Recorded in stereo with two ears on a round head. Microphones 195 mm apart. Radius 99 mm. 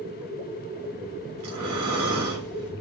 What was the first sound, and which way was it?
Breathing, 75° right (ahead or behind).